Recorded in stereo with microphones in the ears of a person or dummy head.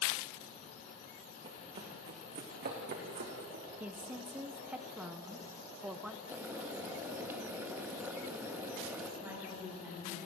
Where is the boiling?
10° right (ahead or behind), 3 m.